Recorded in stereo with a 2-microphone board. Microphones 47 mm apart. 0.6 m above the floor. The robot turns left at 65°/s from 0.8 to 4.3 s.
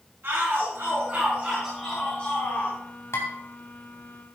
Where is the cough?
No cough in this recording.